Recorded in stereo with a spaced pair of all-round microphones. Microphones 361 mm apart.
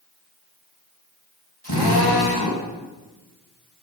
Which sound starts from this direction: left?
A drill, at 1.6 s.